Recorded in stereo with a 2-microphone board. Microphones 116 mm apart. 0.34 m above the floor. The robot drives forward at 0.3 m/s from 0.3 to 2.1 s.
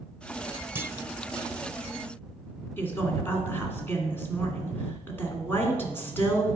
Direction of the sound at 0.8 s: 20° right (ahead or behind).